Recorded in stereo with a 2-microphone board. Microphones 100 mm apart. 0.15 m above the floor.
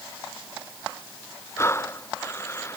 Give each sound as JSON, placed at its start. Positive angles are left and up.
{"t": 1.6, "sound": "breathing", "side_deg": 25}